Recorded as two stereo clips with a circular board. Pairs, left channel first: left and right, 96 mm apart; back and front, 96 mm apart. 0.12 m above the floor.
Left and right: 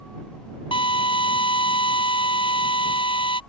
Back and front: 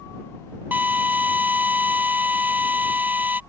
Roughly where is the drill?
Left.